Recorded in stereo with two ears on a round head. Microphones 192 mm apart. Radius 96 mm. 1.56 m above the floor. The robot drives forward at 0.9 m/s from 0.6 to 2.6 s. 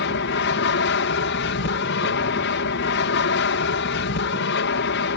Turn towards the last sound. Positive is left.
turn(degrees=60)  # may be behind; listen again after turning